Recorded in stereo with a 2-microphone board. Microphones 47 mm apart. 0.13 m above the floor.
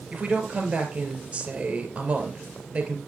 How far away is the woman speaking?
About 2.5 m.